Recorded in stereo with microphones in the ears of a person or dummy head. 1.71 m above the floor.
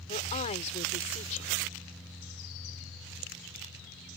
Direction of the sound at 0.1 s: 40° left (ahead or behind).